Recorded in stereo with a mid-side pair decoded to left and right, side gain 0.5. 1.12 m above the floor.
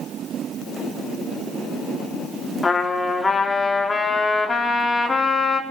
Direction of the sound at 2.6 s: 25° left.